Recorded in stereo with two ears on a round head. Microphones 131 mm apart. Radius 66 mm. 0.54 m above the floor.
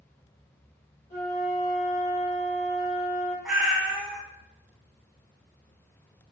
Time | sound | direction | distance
1.1 | a flute | 50° left (ahead or behind) | 1.2 m
3.5 | a cat meowing | 5° right (ahead or behind) | 0.6 m